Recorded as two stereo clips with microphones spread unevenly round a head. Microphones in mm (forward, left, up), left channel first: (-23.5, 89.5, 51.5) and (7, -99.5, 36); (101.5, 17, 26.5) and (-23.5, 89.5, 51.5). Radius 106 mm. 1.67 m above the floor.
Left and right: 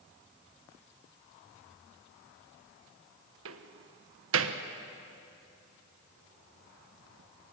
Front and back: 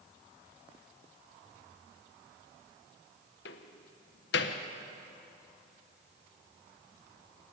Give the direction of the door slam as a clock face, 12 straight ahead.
2 o'clock.